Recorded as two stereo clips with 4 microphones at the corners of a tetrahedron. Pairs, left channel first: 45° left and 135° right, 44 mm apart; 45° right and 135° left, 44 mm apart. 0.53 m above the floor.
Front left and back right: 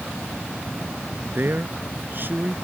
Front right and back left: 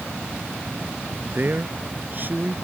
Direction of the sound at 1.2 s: 175° right.